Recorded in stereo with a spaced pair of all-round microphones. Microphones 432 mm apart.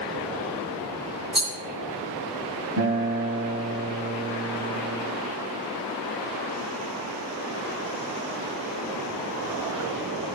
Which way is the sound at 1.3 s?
65° right (ahead or behind).